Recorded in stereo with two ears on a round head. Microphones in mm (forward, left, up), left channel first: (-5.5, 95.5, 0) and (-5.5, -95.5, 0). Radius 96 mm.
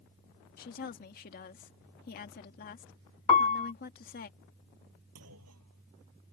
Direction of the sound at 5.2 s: 85° right.